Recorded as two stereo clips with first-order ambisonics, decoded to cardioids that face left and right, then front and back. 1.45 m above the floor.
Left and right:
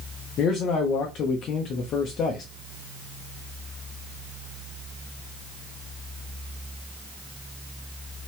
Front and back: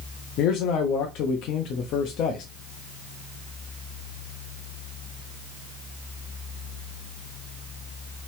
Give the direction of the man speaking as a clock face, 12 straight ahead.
11 o'clock.